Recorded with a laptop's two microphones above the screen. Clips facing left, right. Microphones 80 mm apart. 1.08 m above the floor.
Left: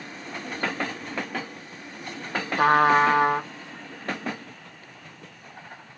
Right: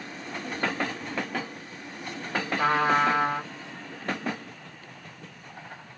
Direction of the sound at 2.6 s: 60° left (ahead or behind).